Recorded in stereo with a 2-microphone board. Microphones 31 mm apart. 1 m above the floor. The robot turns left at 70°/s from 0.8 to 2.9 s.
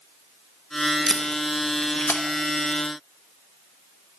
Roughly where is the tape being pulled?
Centre.